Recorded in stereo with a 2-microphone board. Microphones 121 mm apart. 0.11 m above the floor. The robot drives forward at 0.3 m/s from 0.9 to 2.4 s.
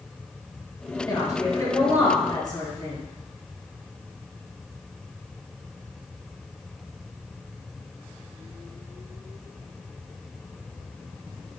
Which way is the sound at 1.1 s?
30° left (ahead or behind).